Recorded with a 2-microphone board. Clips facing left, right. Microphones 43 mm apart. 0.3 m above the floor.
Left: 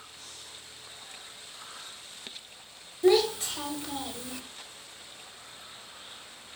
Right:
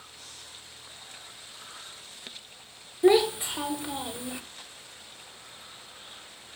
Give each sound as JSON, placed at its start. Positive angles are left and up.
{"t": 3.0, "sound": "a child speaking", "side_deg": -20, "distance_m": 0.6}